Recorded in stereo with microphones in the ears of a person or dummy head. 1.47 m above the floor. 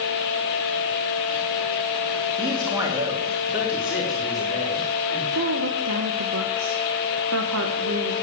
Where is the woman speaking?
70° right (ahead or behind), 1.7 m.